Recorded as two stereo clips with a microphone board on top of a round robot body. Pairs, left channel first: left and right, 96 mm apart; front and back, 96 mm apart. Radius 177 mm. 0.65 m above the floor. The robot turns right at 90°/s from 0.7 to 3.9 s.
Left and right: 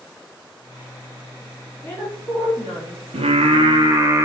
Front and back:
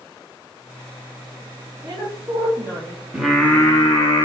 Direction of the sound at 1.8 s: 155° left.